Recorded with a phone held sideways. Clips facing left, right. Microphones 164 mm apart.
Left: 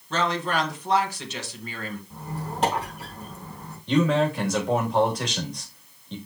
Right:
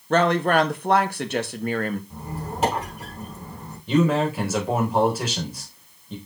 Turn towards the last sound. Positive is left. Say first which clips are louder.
# right 1 dB
turn(degrees=-5)  # may be behind; listen again after turning